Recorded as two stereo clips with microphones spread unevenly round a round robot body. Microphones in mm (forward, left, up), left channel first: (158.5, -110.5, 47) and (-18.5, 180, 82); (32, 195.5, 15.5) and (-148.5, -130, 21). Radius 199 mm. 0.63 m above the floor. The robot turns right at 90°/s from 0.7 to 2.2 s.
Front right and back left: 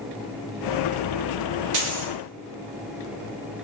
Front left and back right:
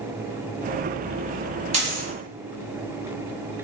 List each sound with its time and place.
1.7 s a dropped coin: 165° left, 1.0 m; by 2.1 s 165° right, 1.0 m